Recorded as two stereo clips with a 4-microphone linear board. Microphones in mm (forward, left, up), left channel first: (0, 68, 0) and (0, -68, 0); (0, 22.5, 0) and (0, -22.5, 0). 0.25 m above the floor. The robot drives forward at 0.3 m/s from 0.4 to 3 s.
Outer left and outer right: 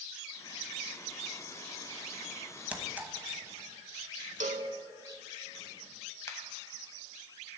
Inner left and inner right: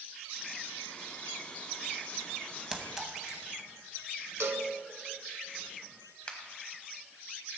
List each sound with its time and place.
2.7 s a clink: 10° right (ahead or behind), 1.0 m
4.4 s a cowbell: 70° right (ahead or behind), 0.6 m
6.3 s a finger snap: 20° left (ahead or behind), 1.4 m